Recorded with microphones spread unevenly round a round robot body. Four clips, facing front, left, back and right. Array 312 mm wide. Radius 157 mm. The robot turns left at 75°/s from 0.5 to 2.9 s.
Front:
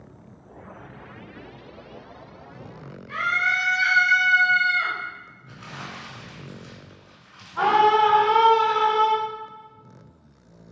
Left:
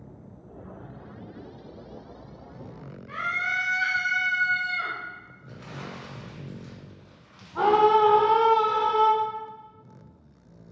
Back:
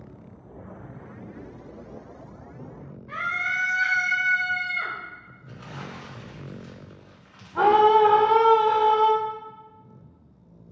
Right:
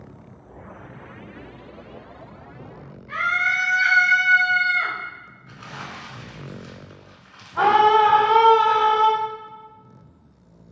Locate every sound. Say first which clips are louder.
3.1 s a scream: right 7 dB, front 4 dB; straight behind, 2 m
5.5 s crumpling: right 3 dB, even; 165° left, 1.9 m
7.5 s a scream: right 4 dB, back 1 dB; 175° right, 1.6 m